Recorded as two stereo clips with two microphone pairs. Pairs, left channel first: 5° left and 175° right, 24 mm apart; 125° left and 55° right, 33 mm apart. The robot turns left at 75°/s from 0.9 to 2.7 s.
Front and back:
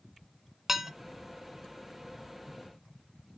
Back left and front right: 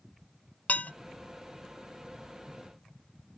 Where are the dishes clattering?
115° left, 1.0 m.